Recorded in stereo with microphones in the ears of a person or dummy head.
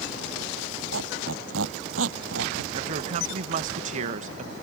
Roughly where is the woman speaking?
Right.